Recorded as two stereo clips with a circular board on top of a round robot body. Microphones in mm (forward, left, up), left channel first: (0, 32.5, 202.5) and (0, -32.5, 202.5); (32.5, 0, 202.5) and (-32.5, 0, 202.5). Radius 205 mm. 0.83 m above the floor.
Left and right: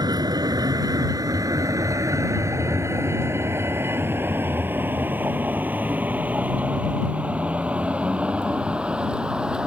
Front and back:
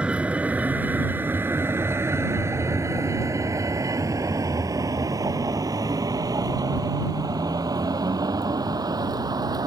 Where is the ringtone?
I don't hear a ringtone.